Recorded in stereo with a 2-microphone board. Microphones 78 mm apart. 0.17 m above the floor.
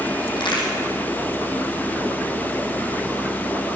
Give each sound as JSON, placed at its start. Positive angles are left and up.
{"t": 0.4, "sound": "a crack", "side_deg": 75, "distance_m": 6.0}